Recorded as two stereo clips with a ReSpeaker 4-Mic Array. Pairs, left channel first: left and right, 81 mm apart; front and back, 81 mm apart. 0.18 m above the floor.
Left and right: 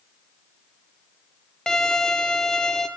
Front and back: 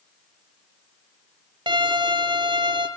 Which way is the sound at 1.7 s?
175° left.